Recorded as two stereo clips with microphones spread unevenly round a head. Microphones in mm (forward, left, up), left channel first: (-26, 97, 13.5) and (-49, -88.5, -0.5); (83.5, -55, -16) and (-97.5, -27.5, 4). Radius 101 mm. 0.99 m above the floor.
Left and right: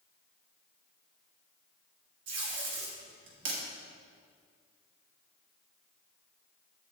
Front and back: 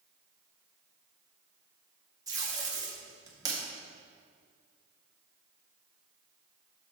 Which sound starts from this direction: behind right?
Tape being pulled, at 2.3 s.